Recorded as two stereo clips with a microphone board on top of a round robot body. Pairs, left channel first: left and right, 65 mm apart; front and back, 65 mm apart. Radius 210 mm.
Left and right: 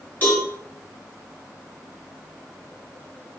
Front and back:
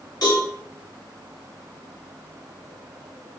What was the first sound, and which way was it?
A cowbell, 30° left.